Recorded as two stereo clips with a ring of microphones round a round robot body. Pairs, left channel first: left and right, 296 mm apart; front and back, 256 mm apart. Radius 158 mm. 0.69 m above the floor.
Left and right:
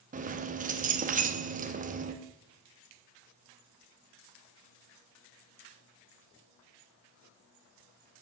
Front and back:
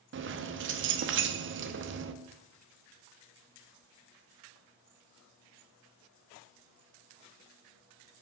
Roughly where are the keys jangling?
Behind right.